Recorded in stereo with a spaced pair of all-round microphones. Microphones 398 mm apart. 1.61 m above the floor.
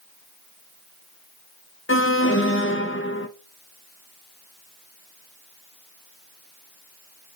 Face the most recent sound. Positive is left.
turn(degrees=30)  # may be behind; listen again after turning